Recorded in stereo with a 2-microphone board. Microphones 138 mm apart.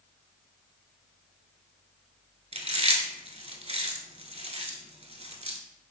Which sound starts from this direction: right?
Chewing, at 2.5 s.